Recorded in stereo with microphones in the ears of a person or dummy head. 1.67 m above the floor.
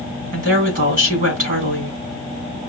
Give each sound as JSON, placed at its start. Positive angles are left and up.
{"t": 0.3, "sound": "a woman speaking", "side_deg": -50, "distance_m": 4.0}